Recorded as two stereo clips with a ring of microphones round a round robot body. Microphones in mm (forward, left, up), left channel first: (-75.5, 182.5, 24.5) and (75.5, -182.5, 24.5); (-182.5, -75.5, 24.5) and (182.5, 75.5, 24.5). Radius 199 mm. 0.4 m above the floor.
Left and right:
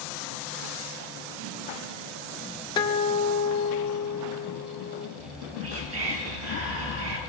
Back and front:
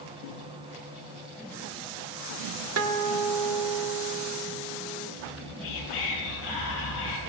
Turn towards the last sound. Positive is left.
turn(degrees=-120)